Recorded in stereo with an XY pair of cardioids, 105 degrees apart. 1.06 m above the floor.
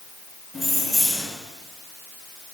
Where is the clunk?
No clunk in this recording.